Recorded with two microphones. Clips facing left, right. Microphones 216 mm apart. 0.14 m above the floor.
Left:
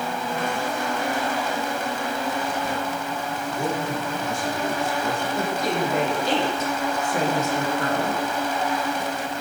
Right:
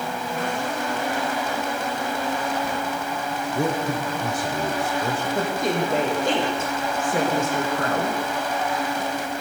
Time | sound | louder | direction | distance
3.5 | a man speaking | right 3 dB | 75° right (ahead or behind) | 7.5 m
5.3 | a woman speaking | right 2 dB | 50° right (ahead or behind) | 7.5 m